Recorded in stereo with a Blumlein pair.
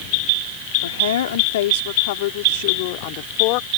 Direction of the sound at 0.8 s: 60° left.